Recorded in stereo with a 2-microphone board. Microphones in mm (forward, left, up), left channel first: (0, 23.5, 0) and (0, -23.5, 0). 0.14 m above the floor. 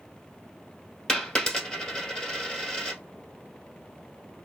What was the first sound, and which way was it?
A dropped coin, 20° left (ahead or behind).